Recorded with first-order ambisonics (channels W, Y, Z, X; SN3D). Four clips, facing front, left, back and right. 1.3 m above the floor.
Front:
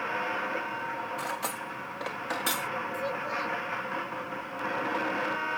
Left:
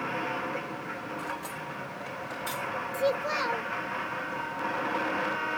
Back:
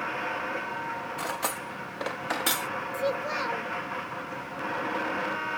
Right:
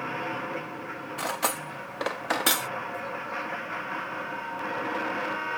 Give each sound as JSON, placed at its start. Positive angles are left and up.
{"t": 1.2, "sound": "cutlery clinking", "azimuth_deg": -105}
{"t": 2.9, "sound": "a child speaking", "azimuth_deg": 120}